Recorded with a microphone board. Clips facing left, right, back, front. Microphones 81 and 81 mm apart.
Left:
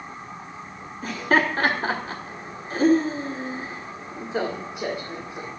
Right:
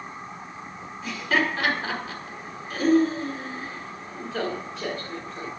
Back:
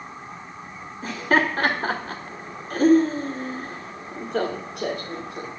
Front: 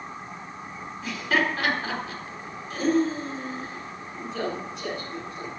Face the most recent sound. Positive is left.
turn(degrees=165)